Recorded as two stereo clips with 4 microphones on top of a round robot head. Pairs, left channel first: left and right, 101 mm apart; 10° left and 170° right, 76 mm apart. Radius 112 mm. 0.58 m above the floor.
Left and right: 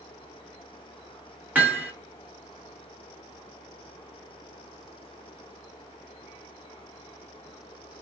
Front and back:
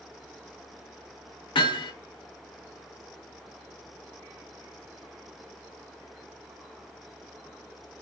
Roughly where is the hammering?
Ahead.